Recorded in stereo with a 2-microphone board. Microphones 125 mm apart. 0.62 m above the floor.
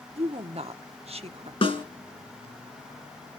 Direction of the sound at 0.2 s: 55° right (ahead or behind).